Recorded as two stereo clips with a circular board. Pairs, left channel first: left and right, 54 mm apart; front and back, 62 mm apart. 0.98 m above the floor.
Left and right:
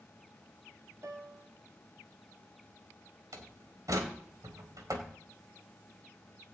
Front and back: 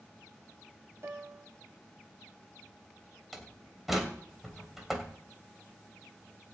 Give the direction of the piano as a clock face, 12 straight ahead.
4 o'clock.